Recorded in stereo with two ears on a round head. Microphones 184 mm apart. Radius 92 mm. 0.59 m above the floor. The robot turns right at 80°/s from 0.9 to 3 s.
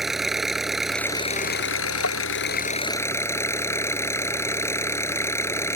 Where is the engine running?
Straight ahead; by 5.8 s 165° left.